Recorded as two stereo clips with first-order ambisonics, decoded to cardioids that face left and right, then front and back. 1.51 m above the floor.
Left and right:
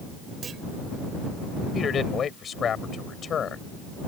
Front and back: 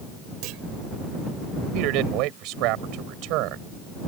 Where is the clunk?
155° right.